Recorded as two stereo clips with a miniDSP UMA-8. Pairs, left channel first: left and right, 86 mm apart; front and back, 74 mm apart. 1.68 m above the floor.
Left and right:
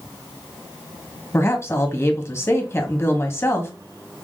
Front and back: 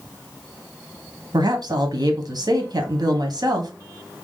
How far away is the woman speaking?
About 1.4 m.